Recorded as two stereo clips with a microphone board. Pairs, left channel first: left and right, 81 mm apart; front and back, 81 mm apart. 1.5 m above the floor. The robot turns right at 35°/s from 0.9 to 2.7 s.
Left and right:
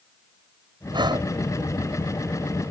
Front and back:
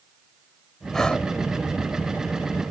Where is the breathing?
85° right; by 1.3 s 70° right.